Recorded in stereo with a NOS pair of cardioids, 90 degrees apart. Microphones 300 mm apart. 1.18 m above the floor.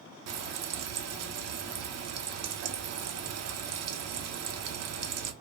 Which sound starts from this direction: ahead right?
Frying, at 0.3 s.